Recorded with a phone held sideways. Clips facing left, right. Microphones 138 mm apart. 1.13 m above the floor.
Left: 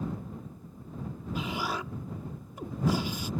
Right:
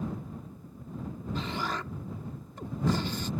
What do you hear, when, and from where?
1.4 s an explosion: 10° left (ahead or behind)